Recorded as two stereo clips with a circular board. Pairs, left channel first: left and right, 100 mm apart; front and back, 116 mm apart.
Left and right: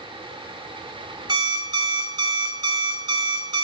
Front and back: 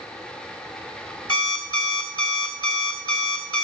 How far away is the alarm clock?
About 1.9 m.